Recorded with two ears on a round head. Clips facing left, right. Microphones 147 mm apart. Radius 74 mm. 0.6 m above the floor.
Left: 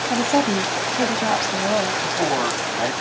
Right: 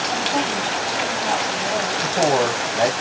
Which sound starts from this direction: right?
A man speaking, at 2.0 s.